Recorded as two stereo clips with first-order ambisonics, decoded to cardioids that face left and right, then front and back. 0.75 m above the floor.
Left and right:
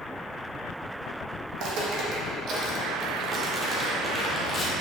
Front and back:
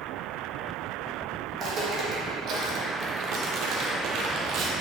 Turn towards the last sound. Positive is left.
turn(degrees=150)